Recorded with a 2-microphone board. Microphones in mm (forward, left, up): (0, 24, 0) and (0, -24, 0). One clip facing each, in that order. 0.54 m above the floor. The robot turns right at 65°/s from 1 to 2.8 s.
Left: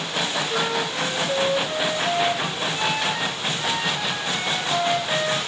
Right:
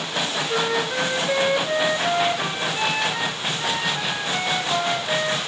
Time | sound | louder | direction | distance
0.5 | a flute | right 2 dB | 135° right | 3 m